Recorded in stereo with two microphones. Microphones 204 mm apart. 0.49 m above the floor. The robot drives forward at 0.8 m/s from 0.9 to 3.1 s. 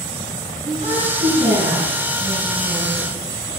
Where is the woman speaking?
35° right (ahead or behind), 5 m; by 3.5 s 25° right (ahead or behind), 6 m.